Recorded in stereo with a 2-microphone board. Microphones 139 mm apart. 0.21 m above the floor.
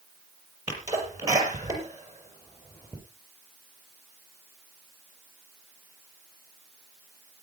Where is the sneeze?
25° right (ahead or behind), 5.5 m.